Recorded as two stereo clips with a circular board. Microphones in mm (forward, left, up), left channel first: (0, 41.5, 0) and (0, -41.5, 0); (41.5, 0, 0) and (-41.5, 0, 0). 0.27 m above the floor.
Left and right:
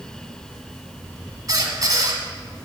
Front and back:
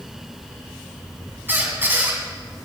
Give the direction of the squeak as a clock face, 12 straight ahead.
4 o'clock.